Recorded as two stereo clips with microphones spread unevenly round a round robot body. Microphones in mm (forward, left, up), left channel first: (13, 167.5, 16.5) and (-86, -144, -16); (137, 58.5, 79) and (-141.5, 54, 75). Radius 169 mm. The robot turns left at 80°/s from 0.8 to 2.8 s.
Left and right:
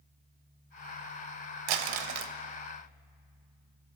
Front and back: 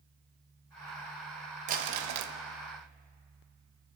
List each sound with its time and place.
1.7 s crumpling: 115° right, 0.6 m; by 2.3 s 165° right, 0.6 m